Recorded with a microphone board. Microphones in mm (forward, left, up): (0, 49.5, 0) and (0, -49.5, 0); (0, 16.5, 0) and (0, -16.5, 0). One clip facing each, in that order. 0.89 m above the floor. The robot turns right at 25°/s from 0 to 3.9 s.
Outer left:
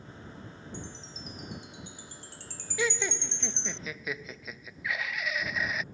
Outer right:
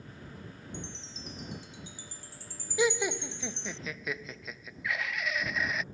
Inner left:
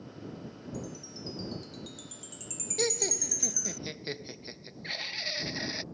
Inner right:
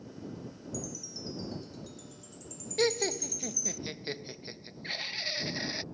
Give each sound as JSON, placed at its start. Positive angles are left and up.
{"t": 0.7, "sound": "a chime", "side_deg": 35}
{"t": 2.8, "sound": "laughter", "side_deg": -20}